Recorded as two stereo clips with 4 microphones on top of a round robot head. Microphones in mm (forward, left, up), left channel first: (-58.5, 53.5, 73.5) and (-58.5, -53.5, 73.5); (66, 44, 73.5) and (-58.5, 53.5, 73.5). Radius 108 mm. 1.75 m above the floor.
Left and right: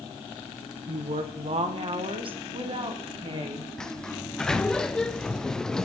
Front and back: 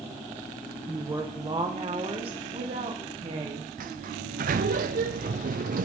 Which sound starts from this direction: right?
A woman speaking, at 0.9 s.